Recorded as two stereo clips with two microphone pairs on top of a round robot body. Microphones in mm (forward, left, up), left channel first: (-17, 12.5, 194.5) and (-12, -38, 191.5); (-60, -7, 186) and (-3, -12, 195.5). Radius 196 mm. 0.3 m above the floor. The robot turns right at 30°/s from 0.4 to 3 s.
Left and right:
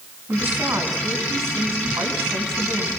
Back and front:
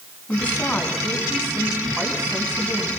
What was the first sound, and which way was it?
A woman speaking, 125° right.